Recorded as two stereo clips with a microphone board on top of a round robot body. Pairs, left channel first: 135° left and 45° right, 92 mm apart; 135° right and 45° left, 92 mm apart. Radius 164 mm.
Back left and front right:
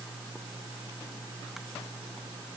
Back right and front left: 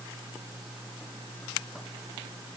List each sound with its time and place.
Only background noise.